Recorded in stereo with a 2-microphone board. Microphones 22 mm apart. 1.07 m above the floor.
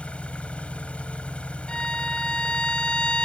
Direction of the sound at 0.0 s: 90° left.